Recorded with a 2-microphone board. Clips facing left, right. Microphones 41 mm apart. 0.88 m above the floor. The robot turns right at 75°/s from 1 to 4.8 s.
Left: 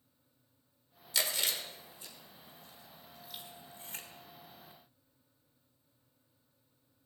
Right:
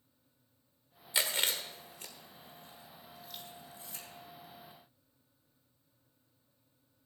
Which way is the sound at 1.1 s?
25° right (ahead or behind).